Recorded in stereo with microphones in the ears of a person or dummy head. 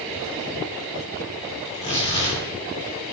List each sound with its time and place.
1.6 s tearing paper: 25° left (ahead or behind), 3.5 m